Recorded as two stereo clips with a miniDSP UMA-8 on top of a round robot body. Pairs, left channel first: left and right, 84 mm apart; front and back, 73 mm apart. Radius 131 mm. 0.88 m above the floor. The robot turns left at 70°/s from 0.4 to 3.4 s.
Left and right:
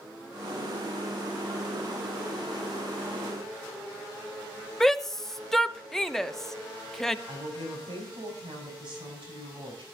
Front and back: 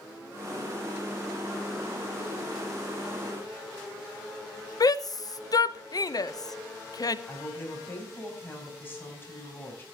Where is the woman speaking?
65° right, 6 m.